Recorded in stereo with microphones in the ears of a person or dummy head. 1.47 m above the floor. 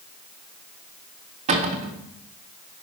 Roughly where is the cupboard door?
Right.